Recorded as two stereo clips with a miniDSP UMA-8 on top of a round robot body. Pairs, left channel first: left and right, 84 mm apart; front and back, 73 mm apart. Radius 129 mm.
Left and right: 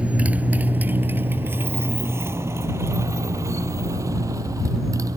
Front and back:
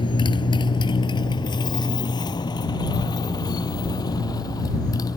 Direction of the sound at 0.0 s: 15° right.